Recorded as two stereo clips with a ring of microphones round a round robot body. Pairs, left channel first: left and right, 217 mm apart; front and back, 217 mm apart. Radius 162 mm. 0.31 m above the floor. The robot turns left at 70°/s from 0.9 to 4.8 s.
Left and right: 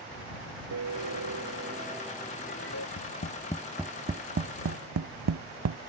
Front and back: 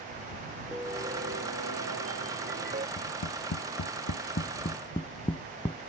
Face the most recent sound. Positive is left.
turn(degrees=-75)